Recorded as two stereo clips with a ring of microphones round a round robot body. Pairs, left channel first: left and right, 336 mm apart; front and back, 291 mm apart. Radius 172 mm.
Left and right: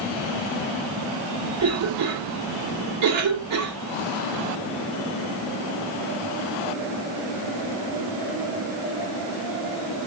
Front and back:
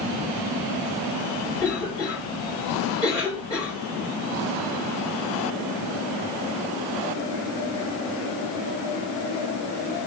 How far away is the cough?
About 1.2 m.